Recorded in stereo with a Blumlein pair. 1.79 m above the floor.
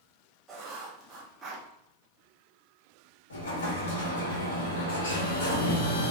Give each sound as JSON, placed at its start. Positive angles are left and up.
{"t": 0.5, "sound": "writing", "azimuth_deg": -20, "distance_m": 1.0}
{"t": 3.3, "sound": "an explosion", "azimuth_deg": 65, "distance_m": 1.2}